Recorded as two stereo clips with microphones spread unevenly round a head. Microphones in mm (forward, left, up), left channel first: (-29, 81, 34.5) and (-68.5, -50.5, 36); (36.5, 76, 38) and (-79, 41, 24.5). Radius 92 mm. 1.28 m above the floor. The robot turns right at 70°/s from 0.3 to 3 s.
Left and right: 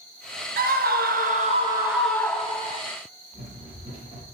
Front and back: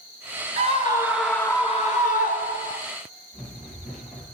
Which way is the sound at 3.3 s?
40° right.